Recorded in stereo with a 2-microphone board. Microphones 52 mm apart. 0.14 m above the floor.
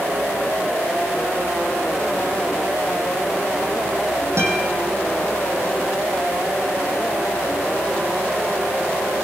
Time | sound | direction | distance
4.4 | a guitar | 60° right (ahead or behind) | 6 m